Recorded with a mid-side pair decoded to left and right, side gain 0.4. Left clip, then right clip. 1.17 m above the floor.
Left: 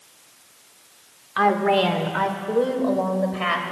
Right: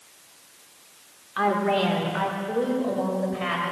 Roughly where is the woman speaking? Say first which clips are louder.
Left 4 dB; ahead left.